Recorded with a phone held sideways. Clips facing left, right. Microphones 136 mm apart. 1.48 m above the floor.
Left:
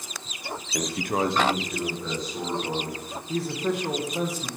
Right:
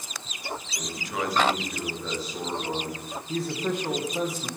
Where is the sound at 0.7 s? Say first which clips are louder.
Left 8 dB; 75° left (ahead or behind), 0.6 m; by 3.0 s 10° right (ahead or behind), 3 m.